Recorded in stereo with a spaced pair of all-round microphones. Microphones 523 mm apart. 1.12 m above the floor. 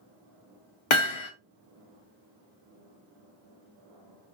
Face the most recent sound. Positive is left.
turn(degrees=60)  # may be behind; listen again after turning